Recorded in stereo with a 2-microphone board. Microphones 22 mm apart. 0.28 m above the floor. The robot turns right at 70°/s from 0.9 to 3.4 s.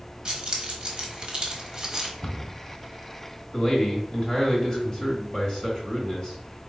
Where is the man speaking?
30° left (ahead or behind), 1.1 m.